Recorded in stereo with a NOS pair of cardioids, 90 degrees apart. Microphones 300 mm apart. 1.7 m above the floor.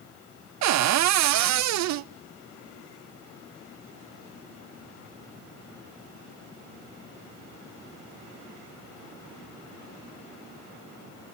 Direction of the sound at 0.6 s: 60° right.